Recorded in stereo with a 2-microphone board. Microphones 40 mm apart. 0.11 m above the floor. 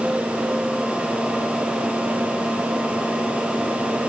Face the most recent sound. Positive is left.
No sound to turn to.